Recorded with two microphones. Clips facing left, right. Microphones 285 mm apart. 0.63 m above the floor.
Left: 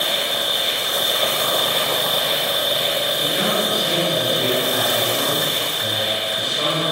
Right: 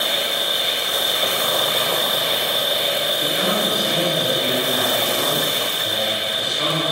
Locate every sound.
0.0 s an insect: 25° right (ahead or behind), 3 m
3.2 s a man speaking: 55° left (ahead or behind), 2.5 m